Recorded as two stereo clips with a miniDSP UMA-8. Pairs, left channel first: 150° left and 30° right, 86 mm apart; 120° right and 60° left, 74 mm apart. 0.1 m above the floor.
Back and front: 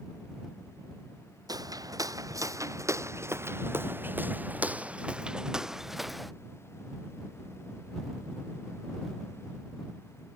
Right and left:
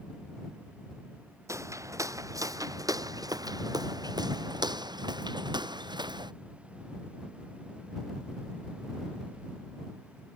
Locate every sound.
1.5 s footsteps: 10° left; by 6.3 s 60° left